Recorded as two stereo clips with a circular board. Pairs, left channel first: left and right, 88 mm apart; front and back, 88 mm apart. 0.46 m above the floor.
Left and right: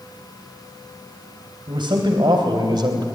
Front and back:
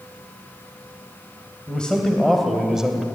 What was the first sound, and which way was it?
A man speaking, 80° right.